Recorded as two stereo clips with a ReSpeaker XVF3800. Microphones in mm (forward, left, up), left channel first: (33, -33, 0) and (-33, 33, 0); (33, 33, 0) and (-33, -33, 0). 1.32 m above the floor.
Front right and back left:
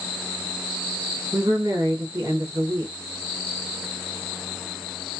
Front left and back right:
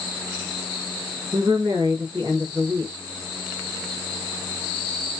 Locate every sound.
1.3 s a woman speaking: 170° right, 1.0 m